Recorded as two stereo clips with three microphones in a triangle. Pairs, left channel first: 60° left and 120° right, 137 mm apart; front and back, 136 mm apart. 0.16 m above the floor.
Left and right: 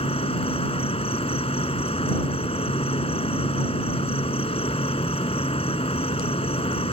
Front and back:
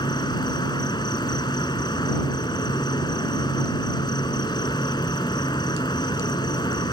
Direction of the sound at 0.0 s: 45° left.